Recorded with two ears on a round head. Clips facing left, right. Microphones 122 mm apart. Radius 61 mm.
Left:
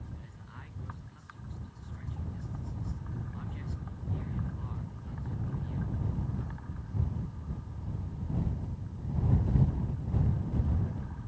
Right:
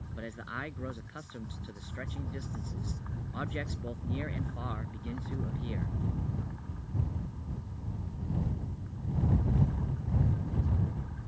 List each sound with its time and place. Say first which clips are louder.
0.2 s a man speaking: right 11 dB; 80° right